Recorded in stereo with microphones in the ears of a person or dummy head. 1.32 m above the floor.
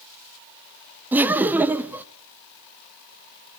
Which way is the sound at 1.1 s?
10° right (ahead or behind).